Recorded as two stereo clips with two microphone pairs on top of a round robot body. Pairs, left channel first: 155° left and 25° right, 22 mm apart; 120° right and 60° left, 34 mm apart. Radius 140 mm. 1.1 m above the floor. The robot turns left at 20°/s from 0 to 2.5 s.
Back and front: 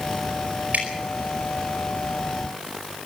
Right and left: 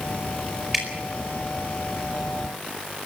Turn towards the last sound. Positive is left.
turn(degrees=-65)